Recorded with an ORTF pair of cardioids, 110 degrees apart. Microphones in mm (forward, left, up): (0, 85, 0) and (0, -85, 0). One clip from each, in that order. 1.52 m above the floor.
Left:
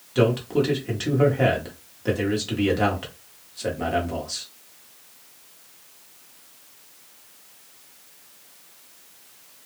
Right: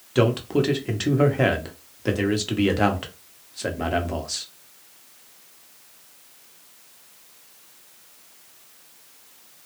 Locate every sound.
0.1 s a man speaking: 20° right, 0.8 m